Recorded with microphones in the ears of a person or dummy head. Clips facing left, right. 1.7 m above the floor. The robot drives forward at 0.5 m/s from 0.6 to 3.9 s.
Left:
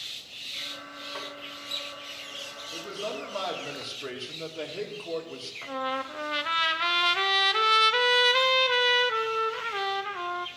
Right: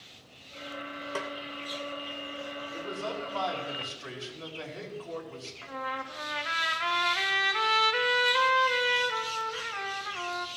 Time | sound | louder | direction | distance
1.1 | a snare drum | right 5 dB | 45° right (ahead or behind) | 0.9 m
2.7 | a man speaking | left 2 dB | 45° left (ahead or behind) | 2.5 m
5.6 | a trumpet | left 6 dB | 55° left (ahead or behind) | 0.7 m